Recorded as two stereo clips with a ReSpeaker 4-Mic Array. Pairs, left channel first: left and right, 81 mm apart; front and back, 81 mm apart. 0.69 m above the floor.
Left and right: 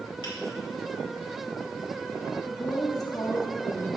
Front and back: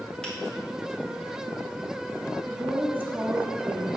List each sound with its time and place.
0.2 s a finger snap: 80° left, 2 m
2.5 s a woman speaking: 120° left, 0.8 m